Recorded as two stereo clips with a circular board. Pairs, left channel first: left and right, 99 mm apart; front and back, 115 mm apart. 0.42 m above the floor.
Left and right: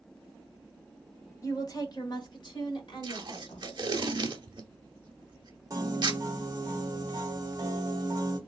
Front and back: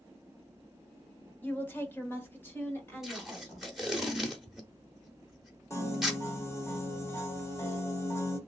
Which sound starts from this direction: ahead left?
A woman speaking, at 1.4 s.